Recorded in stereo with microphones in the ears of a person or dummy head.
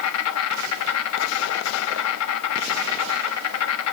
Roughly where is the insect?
Left.